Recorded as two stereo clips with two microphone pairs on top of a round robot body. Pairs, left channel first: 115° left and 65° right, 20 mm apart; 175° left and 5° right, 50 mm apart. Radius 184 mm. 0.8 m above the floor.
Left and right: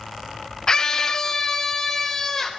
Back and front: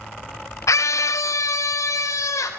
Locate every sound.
0.7 s a scream: 170° left, 1.3 m; by 2.5 s 175° right, 4 m